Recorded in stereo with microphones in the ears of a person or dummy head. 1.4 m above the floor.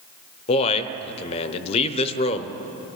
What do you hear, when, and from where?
0.5 s a man speaking: 30° left (ahead or behind), 0.7 m